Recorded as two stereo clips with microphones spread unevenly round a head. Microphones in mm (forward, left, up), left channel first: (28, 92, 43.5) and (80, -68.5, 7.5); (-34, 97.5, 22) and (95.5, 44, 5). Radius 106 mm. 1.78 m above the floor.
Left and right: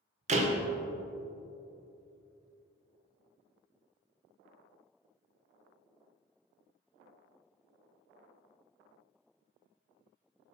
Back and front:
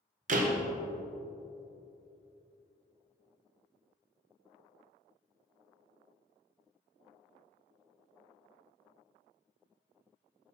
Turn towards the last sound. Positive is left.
turn(degrees=-25)